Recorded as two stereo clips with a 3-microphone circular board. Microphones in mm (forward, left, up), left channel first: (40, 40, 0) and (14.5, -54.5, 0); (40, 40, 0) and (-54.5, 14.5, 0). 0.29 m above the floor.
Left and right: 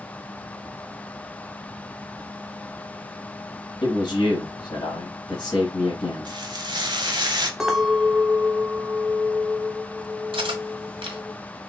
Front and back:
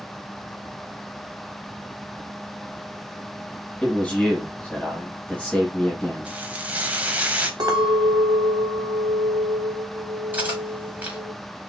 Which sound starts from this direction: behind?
A clink, at 7.6 s.